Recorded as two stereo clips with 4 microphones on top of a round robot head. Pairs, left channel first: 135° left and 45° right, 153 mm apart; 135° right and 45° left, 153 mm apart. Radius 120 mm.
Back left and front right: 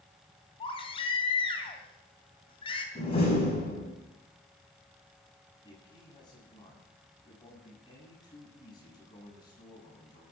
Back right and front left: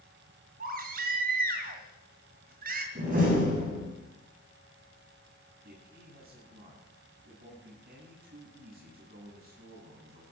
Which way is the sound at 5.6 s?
70° left.